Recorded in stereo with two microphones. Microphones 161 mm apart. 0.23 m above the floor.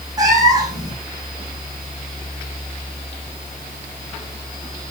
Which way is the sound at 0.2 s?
25° right (ahead or behind).